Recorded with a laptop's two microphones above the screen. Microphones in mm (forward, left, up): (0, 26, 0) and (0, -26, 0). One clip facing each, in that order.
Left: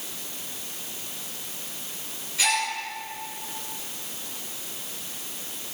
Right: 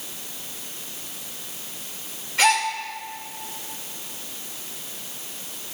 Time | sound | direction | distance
2.4 | a gasp | 60° right (ahead or behind) | 1.4 m